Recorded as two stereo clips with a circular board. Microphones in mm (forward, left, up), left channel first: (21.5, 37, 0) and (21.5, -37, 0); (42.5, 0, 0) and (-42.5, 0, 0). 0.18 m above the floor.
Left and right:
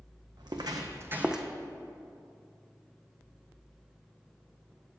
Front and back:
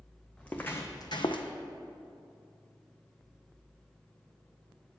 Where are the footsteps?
80° right, 0.9 m; by 1.5 s straight ahead, 0.7 m.